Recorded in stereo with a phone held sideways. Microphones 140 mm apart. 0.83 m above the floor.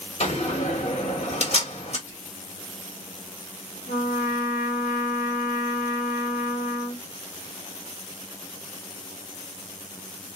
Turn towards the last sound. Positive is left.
turn(degrees=75)  # may be behind; listen again after turning